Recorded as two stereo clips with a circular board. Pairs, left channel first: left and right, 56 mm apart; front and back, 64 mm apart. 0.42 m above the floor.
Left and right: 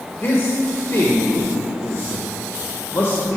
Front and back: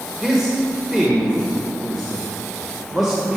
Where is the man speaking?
100° left, 1.2 m.